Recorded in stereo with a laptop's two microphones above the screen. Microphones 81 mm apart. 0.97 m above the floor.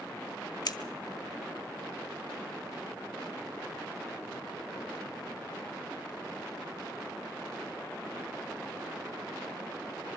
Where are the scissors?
55° left (ahead or behind), 1.1 m.